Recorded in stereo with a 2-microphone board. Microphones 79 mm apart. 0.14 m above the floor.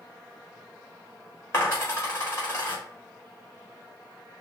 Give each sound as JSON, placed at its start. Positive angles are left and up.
{"t": 1.5, "sound": "a dropped coin", "side_deg": 35, "distance_m": 2.5}